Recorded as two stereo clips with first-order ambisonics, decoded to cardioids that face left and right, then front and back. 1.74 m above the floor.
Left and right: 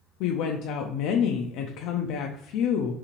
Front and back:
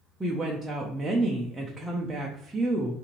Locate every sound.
0.2 s a woman speaking: 100° left, 0.5 m